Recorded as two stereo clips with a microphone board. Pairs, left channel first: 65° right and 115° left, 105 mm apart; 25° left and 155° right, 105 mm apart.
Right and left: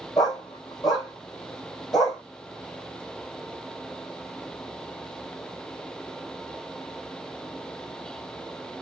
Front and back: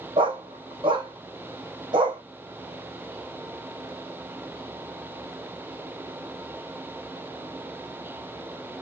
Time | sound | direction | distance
0.2 | a dog barking | 120° right | 2.0 m